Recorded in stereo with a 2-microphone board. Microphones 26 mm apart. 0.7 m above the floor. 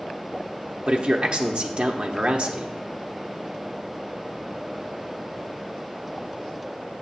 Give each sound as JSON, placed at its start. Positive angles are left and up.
{"t": 0.9, "sound": "a man speaking", "side_deg": -40, "distance_m": 1.0}